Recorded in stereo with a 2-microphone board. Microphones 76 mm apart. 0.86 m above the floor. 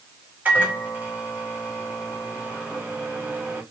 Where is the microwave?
25° right (ahead or behind), 1.4 m.